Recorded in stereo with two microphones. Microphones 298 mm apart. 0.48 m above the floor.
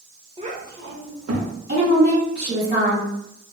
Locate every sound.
0.4 s a child speaking: 20° right (ahead or behind), 0.7 m; by 1.5 s 65° right (ahead or behind), 0.8 m
1.7 s a woman speaking: 35° right (ahead or behind), 1.5 m